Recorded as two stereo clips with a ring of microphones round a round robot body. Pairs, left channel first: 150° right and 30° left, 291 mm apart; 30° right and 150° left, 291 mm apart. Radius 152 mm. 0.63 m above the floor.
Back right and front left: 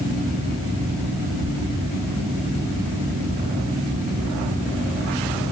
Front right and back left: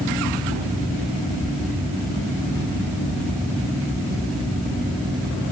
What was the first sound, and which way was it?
Only background noise.